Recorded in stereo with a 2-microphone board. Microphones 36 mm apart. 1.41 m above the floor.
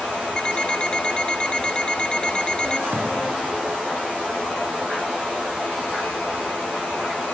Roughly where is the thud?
Right.